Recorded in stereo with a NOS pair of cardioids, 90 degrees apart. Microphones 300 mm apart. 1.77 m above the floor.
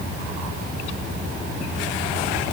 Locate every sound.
Only background noise.